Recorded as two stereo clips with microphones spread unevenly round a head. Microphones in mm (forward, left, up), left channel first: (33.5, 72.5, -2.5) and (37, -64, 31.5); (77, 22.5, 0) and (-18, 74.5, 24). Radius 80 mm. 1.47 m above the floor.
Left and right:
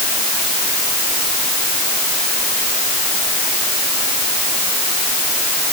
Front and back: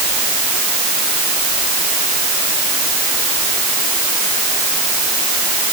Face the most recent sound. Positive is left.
No sound to turn to.